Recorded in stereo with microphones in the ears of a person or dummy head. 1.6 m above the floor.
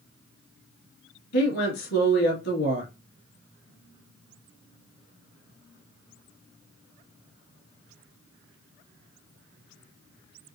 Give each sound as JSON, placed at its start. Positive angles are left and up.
{"t": 1.3, "sound": "a woman speaking", "side_deg": 60, "distance_m": 2.5}